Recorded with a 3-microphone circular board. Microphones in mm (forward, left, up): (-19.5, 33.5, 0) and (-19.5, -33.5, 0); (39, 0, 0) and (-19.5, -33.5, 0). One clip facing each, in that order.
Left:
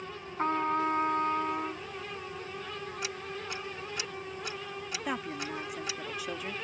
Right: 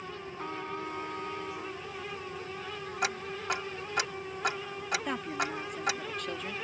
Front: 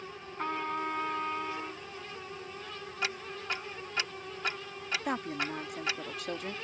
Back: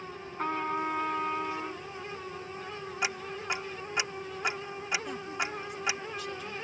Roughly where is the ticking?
Right.